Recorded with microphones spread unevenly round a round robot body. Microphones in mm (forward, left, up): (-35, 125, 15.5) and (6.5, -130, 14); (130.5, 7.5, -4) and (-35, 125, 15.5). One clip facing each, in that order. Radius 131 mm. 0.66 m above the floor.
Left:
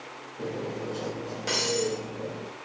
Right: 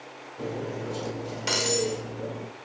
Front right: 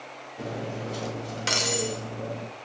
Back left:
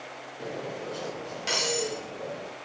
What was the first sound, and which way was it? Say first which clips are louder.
Cutlery clinking: even, front right 2 dB; 10° right.